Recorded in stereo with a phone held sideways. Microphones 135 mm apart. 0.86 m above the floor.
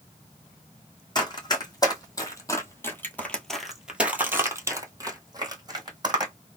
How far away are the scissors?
No scissors in this recording.